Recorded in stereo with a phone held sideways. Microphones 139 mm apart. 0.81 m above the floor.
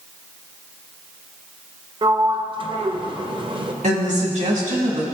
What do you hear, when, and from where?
2.0 s a sliding door: 35° right (ahead or behind), 0.6 m
3.8 s a woman speaking: 60° right (ahead or behind), 1.7 m